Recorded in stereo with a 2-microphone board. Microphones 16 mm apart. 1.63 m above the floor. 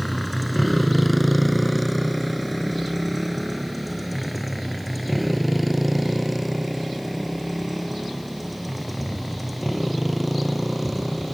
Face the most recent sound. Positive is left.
turn(degrees=-5)  # may be behind; listen again after turning